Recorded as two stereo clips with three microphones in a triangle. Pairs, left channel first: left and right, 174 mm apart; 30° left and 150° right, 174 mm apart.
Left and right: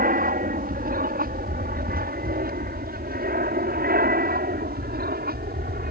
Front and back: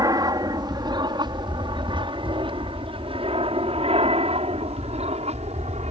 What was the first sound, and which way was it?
An aircraft, 85° right.